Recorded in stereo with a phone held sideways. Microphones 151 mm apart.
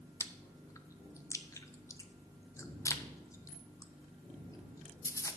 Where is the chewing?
20° left (ahead or behind), 0.6 m.